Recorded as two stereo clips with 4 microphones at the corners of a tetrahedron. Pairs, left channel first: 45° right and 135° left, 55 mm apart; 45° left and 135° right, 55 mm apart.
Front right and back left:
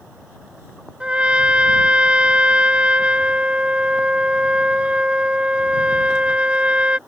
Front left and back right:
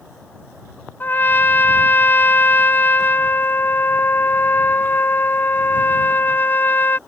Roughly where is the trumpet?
Left.